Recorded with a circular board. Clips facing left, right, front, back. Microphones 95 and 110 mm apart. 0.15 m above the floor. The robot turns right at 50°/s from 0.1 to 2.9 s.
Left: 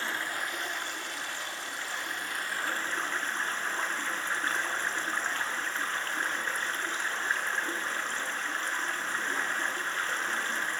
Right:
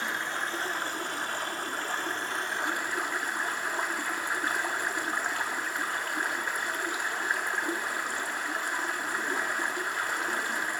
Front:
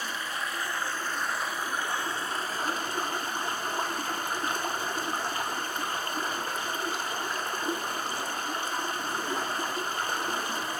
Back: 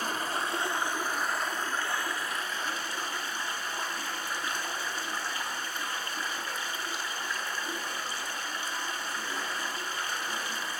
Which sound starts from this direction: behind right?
Running water, at 0.0 s.